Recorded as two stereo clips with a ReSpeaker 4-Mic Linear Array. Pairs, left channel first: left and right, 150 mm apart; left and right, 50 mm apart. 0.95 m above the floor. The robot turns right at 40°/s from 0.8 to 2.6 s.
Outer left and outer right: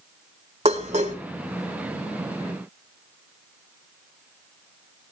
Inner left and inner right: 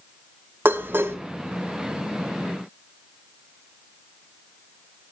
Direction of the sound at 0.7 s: 45° right (ahead or behind).